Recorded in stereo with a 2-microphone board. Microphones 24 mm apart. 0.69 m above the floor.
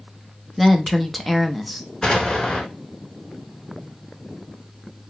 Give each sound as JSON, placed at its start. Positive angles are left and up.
{"t": 0.6, "sound": "a woman speaking", "side_deg": 0, "distance_m": 0.6}
{"t": 2.0, "sound": "an explosion", "side_deg": 25, "distance_m": 1.2}